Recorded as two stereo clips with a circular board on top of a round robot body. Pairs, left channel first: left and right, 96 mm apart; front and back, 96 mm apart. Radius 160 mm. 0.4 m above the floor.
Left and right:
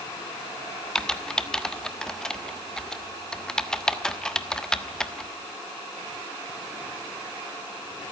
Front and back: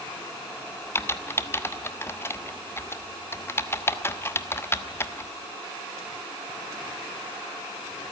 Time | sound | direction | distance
0.9 | typing on a keyboard | 15° left | 1.4 m